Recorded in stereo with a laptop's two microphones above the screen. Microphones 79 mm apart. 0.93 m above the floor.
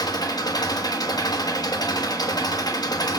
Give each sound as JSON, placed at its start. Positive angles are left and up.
{"t": 0.0, "sound": "an engine running", "side_deg": 65, "distance_m": 1.5}